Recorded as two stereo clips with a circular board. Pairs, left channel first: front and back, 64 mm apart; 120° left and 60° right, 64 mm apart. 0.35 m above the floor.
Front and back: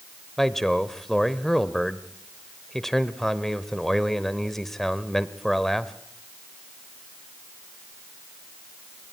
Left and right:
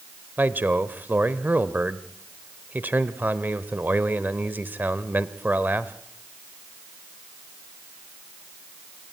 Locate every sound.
0.4 s a man speaking: 85° right, 1.1 m